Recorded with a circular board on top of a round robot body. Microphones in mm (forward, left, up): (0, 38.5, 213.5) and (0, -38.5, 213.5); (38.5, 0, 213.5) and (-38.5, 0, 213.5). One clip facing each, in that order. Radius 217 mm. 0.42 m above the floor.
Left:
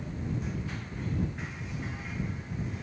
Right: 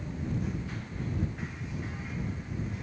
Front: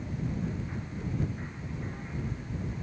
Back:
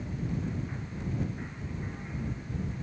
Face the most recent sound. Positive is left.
No sound to turn to.